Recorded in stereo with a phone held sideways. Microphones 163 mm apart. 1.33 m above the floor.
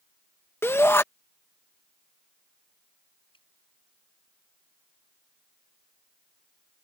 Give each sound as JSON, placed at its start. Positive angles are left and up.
{"t": 0.6, "sound": "a shout", "side_deg": 15}
{"t": 3.3, "sound": "dripping", "side_deg": 30}